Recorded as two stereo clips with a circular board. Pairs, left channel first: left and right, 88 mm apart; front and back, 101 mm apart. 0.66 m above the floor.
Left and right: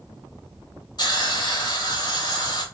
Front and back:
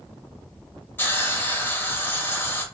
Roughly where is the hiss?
Ahead left.